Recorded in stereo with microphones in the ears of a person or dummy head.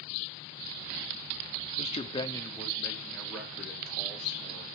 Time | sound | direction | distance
1.8 | a man speaking | 35° left (ahead or behind) | 0.6 m